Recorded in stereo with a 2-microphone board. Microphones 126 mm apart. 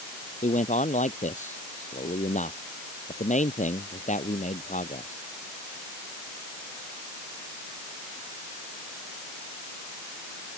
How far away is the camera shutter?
No camera shutter in this recording.